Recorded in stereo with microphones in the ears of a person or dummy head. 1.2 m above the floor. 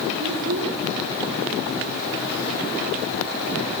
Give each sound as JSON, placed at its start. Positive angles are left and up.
{"t": 0.2, "sound": "a child speaking", "side_deg": -75, "distance_m": 2.5}